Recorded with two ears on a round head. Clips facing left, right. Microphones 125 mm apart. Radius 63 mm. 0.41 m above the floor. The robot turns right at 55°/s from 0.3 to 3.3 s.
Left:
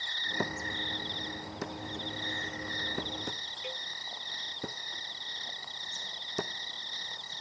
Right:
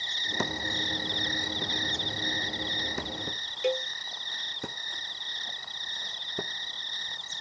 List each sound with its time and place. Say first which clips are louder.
0.0 s an insect: right 2 dB; 160° right; by 7.4 s 5° left
3.6 s a cowbell: right 16 dB; 60° right (ahead or behind)